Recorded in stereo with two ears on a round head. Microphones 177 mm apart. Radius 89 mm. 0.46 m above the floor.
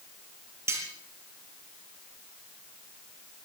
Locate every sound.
0.7 s cutlery clinking: 15° right (ahead or behind), 6.5 m